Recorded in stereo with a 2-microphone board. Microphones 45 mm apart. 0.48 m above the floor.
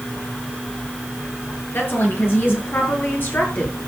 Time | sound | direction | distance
1.7 | a woman speaking | 55° left (ahead or behind) | 8 m